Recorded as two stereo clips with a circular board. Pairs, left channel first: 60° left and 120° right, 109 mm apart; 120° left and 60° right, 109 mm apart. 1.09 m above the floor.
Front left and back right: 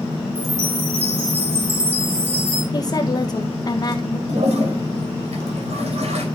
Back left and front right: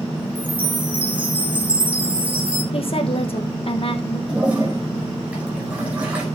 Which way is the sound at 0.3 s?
135° right.